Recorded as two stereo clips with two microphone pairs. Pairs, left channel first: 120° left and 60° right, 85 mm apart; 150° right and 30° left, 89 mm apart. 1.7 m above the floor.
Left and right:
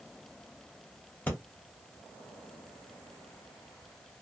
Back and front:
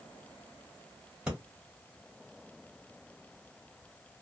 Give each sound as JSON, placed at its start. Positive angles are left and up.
{"t": 1.3, "sound": "breathing", "azimuth_deg": 90, "distance_m": 1.4}